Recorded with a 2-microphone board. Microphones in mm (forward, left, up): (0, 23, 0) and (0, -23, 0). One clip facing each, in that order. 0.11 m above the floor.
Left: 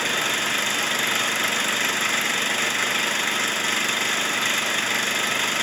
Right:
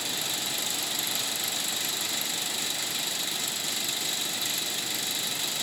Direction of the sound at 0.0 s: 50° left (ahead or behind).